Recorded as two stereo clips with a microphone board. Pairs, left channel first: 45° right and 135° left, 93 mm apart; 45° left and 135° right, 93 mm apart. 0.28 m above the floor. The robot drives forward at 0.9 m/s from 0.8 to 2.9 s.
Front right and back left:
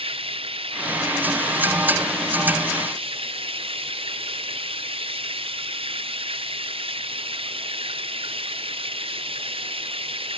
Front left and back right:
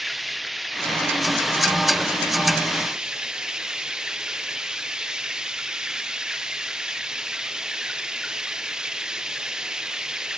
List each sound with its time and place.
0.0 s running water: 135° left; by 10.4 s 140° left